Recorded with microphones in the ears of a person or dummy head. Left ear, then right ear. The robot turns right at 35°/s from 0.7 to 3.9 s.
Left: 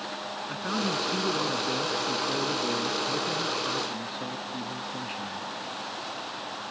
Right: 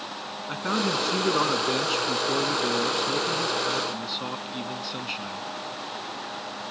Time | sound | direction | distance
0.5 | a man speaking | 160° right | ?